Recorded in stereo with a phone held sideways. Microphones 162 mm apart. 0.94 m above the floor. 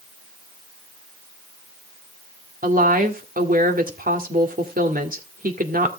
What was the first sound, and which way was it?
A woman speaking, 65° right (ahead or behind).